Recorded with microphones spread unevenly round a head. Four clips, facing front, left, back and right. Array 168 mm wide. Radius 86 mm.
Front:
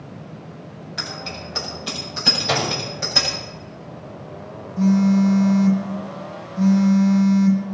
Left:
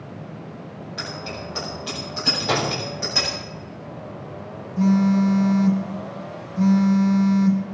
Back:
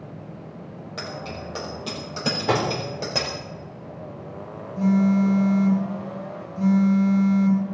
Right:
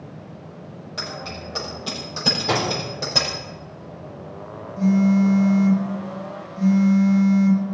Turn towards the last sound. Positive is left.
turn(degrees=120)